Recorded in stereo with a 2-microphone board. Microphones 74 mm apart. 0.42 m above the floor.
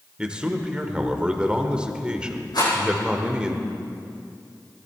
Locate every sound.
0.2 s a man speaking: 15° right (ahead or behind), 1.2 m
2.5 s a rattle: 65° left (ahead or behind), 6.5 m